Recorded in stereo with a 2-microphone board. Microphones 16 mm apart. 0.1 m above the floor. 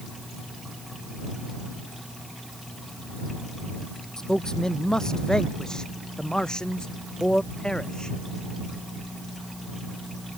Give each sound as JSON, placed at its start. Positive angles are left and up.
{"t": 4.2, "sound": "a man speaking", "side_deg": 35}